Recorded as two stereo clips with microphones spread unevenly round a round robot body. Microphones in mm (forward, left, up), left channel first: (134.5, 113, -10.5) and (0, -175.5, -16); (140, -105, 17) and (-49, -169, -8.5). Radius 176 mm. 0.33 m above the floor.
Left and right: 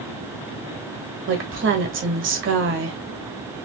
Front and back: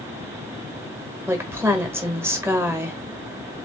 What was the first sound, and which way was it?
A woman speaking, 100° right.